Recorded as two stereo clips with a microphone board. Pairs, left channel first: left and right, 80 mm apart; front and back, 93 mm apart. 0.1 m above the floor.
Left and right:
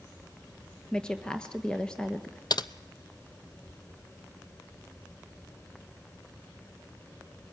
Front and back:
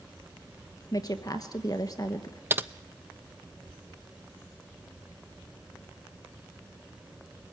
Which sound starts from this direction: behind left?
Typing on a keyboard, at 2.5 s.